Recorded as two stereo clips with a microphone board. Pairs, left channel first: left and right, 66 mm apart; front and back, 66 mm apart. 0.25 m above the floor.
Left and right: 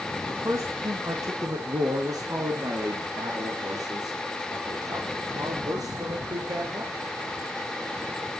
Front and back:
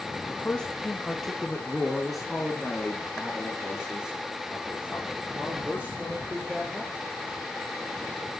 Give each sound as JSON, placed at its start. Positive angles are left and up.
{"t": 0.3, "sound": "a man speaking", "azimuth_deg": -65, "distance_m": 2.5}